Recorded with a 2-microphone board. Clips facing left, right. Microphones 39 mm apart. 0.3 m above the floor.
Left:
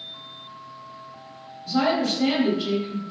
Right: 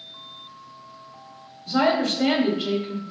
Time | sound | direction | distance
1.7 | a woman speaking | 35° right (ahead or behind) | 1.5 m